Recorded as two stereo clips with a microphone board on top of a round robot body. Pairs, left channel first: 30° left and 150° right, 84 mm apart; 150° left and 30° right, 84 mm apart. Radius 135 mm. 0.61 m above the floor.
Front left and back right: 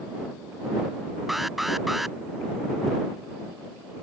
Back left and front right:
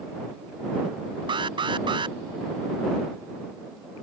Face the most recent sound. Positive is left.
turn(degrees=-60)